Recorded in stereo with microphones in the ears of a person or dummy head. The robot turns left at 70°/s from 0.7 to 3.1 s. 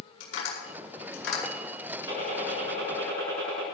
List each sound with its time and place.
0.2 s tapping: 70° left (ahead or behind), 8 m; by 1.4 s 55° left (ahead or behind), 8 m
2.1 s a gunshot: 15° right, 7 m; by 3.7 s 85° right, 7 m